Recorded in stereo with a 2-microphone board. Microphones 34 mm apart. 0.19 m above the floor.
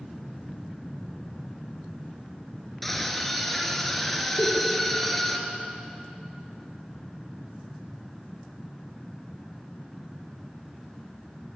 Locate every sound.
2.8 s a scream: 5° left (ahead or behind), 3.5 m
4.4 s a giggle: 70° left (ahead or behind), 5.5 m